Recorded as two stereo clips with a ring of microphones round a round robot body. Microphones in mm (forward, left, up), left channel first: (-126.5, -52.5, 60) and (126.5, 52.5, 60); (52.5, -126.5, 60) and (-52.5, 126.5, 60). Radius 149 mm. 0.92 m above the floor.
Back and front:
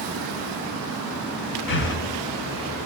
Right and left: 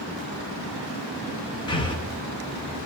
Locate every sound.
1.7 s breathing: 135° right, 0.8 m